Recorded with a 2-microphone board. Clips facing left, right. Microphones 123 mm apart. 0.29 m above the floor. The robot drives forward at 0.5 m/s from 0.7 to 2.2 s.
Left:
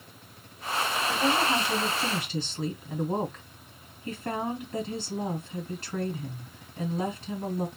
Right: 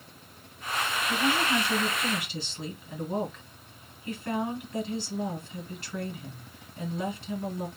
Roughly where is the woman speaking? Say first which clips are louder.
Left 1 dB; left.